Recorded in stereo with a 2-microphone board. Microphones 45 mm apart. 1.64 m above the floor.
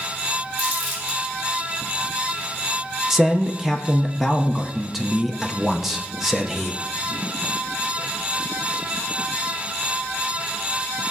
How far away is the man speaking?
About 0.6 m.